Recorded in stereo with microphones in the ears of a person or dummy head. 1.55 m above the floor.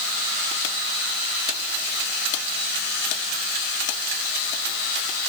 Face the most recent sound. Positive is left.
No sound to turn to.